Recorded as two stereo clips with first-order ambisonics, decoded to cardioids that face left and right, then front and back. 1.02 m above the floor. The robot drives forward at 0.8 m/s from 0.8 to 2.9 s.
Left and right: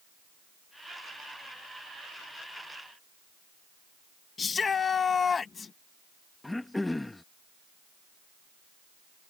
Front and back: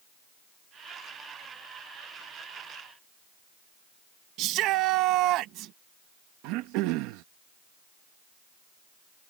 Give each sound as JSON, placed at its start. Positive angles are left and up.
{"t": 4.4, "sound": "a shout", "azimuth_deg": 155}
{"t": 6.4, "sound": "throat clearing", "azimuth_deg": 175}